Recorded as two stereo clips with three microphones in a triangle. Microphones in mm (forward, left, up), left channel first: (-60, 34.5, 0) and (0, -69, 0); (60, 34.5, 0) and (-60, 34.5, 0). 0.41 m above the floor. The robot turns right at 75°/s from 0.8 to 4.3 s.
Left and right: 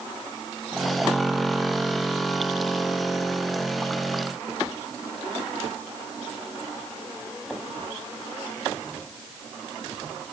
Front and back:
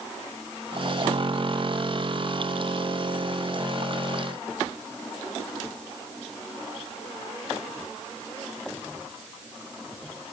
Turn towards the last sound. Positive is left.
No sound to turn to.